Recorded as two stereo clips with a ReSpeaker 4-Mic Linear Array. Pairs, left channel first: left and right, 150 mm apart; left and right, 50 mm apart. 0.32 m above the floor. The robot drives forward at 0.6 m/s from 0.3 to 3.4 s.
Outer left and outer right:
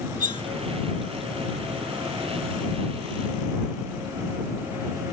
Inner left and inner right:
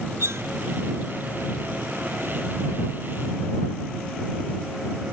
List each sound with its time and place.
0.2 s cutlery clinking: 60° right (ahead or behind)